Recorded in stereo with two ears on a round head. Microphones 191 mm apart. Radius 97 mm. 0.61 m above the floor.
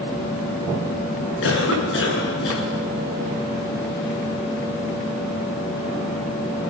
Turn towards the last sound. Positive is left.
turn(degrees=60)  # may be behind; listen again after turning